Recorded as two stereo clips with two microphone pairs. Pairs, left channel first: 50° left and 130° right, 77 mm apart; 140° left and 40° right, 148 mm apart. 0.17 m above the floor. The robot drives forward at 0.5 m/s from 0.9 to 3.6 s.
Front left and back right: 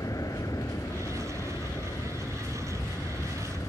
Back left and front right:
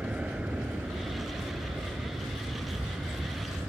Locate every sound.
0.0 s an aircraft: 40° left